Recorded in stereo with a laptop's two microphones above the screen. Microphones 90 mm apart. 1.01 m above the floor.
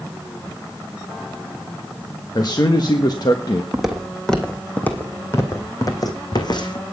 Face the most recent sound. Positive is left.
turn(degrees=55)  # may be behind; listen again after turning